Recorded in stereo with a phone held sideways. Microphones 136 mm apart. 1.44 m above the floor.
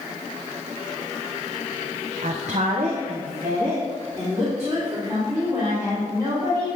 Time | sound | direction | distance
2.2 | a woman speaking | 70° right (ahead or behind) | 0.5 m